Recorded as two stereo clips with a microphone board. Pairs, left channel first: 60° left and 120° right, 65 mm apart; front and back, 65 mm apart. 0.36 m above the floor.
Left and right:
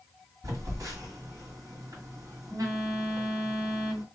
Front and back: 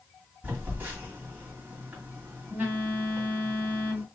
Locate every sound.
0.4 s a phone buzzing: 125° right, 1.9 m